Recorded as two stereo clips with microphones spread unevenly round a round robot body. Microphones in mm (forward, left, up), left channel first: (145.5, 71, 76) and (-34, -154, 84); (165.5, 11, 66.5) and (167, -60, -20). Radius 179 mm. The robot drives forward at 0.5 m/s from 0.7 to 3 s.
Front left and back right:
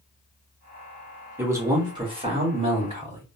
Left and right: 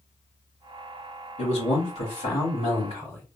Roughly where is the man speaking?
Behind left.